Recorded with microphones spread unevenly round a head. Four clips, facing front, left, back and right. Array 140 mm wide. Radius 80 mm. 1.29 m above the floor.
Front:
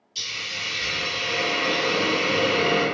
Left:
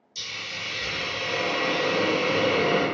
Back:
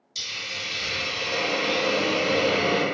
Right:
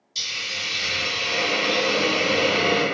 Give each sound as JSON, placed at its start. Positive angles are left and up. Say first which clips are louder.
{"t": 0.1, "sound": "a hiss", "louder": "right 3 dB, front 1 dB", "azimuth_deg": -170, "distance_m": 1.3}